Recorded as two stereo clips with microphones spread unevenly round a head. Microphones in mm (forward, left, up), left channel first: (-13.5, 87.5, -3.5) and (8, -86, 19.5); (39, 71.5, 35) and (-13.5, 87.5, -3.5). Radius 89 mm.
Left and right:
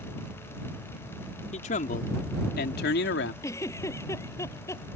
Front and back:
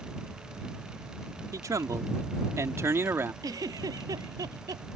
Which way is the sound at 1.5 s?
145° left.